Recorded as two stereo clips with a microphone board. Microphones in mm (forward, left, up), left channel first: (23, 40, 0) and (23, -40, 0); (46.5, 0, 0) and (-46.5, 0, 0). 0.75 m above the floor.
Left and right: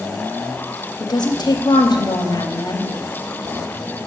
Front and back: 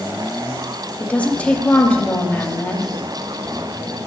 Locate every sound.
1.0 s a woman speaking: 75° left, 0.9 m